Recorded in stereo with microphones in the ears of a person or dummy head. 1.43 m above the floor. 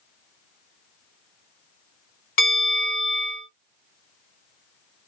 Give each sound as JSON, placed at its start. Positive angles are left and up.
{"t": 2.4, "sound": "a bell", "side_deg": 50, "distance_m": 2.0}